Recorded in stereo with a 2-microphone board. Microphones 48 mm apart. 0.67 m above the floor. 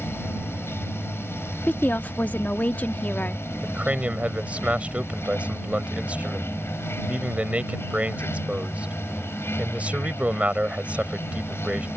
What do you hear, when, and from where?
0.0 s running water: 55° left (ahead or behind)
1.7 s a woman speaking: 35° left (ahead or behind)
3.6 s a man speaking: 30° right (ahead or behind)